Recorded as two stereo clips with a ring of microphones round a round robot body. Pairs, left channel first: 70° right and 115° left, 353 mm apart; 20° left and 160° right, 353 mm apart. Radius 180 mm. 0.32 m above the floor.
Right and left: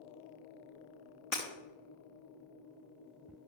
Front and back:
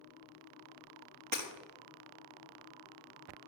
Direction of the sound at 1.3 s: 120° right.